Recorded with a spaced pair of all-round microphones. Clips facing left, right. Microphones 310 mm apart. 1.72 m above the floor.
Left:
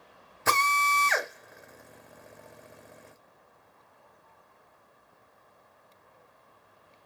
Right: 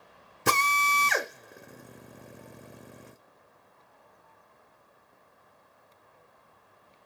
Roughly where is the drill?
Right.